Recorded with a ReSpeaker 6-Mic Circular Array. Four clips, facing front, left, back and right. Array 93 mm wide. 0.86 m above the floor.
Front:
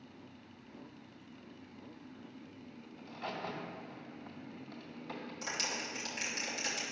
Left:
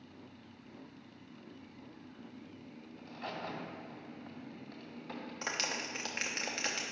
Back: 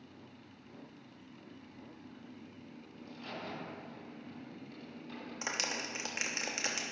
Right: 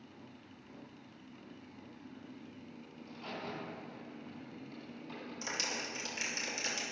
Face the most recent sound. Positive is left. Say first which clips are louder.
# left 2 dB, back 3 dB
turn(degrees=130)